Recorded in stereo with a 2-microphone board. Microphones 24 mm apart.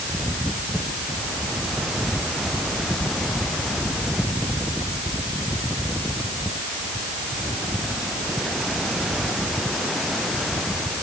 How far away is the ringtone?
I don't hear a ringtone.